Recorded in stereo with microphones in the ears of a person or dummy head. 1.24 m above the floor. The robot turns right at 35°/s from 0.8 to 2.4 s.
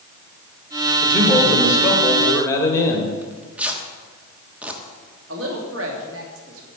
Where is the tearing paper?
5° right (ahead or behind), 1.2 m.